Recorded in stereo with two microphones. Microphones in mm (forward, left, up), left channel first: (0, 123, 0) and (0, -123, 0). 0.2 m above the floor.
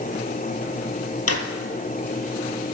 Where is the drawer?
80° left, 1.2 m.